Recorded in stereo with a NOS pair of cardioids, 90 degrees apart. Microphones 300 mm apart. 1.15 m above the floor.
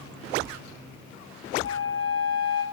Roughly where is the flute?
Ahead left.